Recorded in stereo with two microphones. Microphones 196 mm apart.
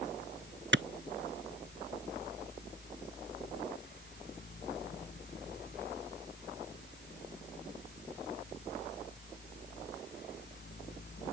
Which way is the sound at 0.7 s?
70° right (ahead or behind).